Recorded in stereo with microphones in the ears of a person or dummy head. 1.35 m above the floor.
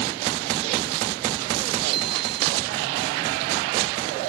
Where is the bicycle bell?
55° right (ahead or behind).